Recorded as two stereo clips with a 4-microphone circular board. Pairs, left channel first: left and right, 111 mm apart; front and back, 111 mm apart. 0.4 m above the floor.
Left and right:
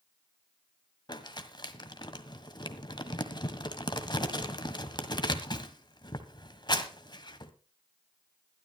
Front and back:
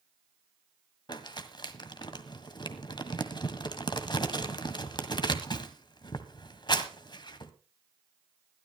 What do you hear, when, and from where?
1.1 s crumpling: 45° left, 1.6 m